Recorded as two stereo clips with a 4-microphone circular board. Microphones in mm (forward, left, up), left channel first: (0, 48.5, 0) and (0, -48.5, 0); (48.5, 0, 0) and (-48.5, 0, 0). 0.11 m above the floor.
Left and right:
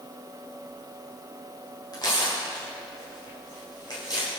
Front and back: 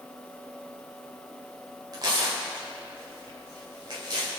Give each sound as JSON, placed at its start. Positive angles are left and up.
{"t": 1.9, "sound": "tearing paper", "azimuth_deg": 135, "distance_m": 6.5}